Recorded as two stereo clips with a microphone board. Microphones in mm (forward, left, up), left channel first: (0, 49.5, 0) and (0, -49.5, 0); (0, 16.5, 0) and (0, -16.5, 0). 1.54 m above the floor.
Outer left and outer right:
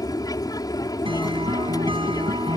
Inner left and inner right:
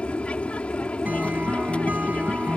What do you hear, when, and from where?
0.0 s an aircraft: 40° left (ahead or behind)
1.1 s a guitar: 60° right (ahead or behind)